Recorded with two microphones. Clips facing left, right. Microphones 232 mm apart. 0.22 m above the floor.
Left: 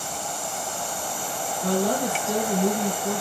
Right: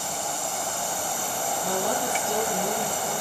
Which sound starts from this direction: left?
A woman speaking, at 1.6 s.